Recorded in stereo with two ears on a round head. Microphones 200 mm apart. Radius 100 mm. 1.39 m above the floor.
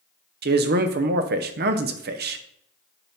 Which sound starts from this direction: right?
A man speaking, at 0.4 s.